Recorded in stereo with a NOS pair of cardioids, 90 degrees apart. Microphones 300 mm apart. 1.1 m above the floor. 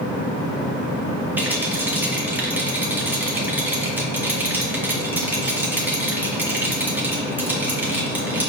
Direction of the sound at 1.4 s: 5° right.